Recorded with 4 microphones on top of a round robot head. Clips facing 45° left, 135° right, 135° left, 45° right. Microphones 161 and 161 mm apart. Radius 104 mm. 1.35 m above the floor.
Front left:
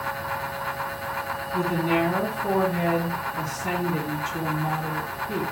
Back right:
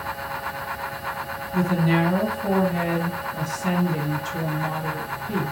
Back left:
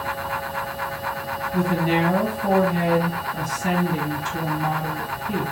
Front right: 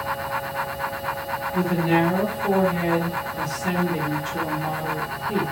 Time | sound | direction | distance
1.5 | a woman speaking | straight behind | 1.5 m